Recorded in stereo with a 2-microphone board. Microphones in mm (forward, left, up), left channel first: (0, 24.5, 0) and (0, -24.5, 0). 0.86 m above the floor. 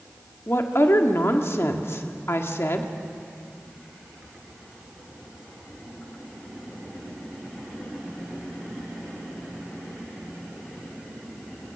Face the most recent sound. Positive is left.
turn(degrees=55)  # may be behind; listen again after turning